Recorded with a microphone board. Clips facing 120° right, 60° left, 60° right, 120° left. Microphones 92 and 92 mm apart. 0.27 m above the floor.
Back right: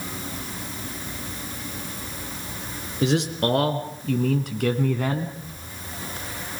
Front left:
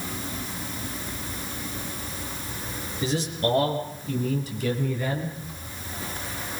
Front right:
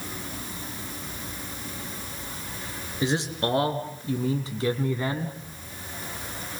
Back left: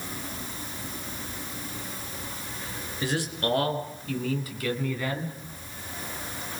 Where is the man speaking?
125° right, 4 m; by 5.4 s 115° right, 2.5 m.